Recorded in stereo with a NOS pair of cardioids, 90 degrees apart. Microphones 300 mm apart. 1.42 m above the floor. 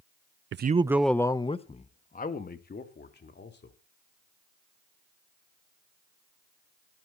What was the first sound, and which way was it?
A man speaking, 45° right.